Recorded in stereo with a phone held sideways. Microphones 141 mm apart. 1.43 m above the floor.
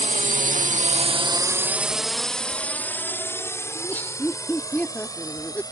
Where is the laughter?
15° left (ahead or behind).